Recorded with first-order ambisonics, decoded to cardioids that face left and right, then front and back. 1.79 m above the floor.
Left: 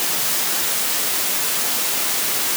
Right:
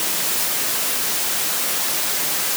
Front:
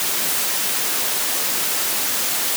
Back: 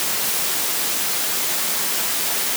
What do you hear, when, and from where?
Only background noise.